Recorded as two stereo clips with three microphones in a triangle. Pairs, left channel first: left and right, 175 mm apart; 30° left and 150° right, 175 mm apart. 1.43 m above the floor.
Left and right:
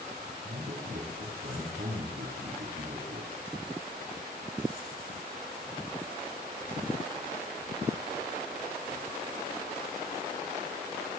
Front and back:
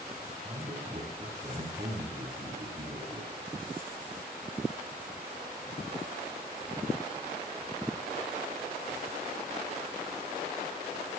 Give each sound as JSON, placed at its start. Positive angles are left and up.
{"t": 0.4, "sound": "a man speaking", "azimuth_deg": -100, "distance_m": 6.0}